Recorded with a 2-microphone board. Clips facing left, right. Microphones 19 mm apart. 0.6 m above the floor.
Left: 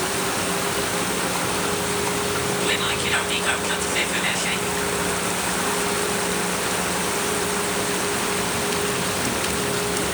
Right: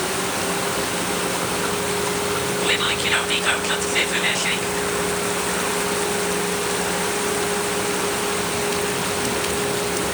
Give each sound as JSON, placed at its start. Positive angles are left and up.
{"t": 2.6, "sound": "whispering", "side_deg": -15, "distance_m": 0.6}